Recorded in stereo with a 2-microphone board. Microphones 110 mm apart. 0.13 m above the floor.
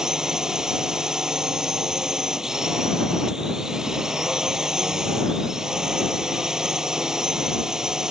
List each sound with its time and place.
0.0 s a drone: 5° right (ahead or behind)